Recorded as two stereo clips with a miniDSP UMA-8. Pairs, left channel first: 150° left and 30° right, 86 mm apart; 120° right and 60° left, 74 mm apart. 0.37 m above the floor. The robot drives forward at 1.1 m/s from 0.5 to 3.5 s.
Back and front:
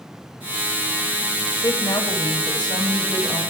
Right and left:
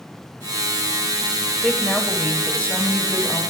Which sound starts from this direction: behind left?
A woman speaking, at 1.6 s.